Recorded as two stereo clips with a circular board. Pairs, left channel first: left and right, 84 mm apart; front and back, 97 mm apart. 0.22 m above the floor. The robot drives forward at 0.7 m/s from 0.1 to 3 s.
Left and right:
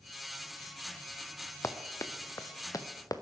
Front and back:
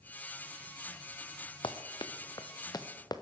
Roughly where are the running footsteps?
Ahead left.